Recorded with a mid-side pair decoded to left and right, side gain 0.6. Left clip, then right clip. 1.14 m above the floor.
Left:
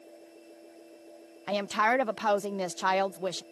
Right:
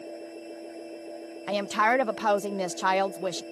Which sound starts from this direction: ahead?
A woman speaking, at 1.5 s.